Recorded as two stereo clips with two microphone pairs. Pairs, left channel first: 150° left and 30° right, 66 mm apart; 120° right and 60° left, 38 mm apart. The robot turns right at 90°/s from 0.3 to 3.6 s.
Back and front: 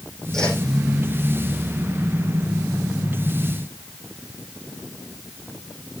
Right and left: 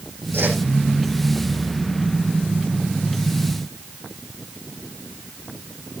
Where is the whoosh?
65° left, 6 m; by 0.6 s 85° left, 6 m.